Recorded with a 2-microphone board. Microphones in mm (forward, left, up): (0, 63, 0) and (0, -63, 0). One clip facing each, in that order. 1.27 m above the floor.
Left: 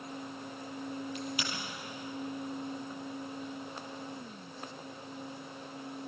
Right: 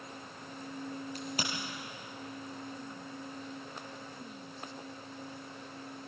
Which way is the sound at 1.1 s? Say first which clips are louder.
Left 1 dB; 40° right (ahead or behind).